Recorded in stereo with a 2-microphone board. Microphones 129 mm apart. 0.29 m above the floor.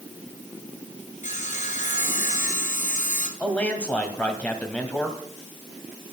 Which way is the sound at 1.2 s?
70° left (ahead or behind).